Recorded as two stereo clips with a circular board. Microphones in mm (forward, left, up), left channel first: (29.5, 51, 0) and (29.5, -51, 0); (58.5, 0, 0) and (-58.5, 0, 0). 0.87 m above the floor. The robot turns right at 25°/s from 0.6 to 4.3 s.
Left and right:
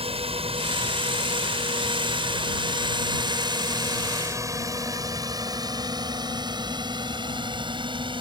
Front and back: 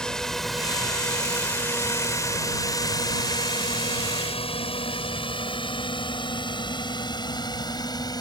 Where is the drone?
85° right; by 8.2 s 55° right.